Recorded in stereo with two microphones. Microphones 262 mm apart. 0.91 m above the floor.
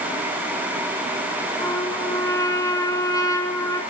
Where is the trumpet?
15° left (ahead or behind), 5.5 m.